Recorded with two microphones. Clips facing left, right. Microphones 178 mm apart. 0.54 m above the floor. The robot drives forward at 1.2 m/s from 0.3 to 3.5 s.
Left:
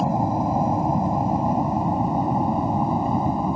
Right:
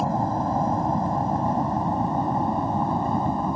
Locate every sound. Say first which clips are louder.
0.0 s an aircraft: left 2 dB; 10° left (ahead or behind)